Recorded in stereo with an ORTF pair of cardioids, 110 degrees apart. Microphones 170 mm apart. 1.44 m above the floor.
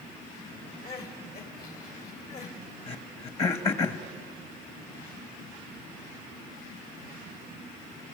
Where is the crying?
60° left, 3 m.